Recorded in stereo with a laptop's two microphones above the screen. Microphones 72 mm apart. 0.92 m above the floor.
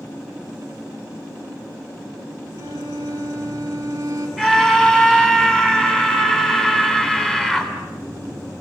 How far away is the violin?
About 6.5 m.